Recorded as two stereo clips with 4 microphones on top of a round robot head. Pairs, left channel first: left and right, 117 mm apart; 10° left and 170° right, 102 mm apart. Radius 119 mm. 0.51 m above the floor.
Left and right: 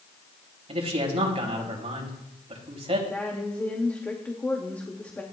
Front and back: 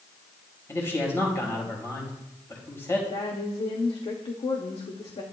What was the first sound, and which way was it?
A man speaking, 55° right.